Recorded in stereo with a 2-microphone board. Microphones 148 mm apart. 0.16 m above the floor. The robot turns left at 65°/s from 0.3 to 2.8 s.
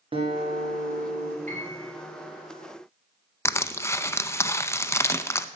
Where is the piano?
100° right, 3.5 m; by 1.9 s 130° right, 3.5 m.